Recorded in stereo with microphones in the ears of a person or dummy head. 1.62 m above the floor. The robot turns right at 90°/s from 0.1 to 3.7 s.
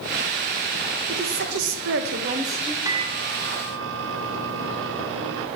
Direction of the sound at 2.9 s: 160° right.